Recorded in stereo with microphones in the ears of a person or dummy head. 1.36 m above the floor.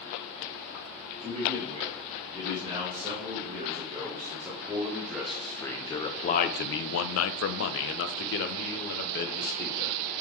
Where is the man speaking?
25° right (ahead or behind), 3.5 m; by 10.0 s 50° left (ahead or behind), 2 m.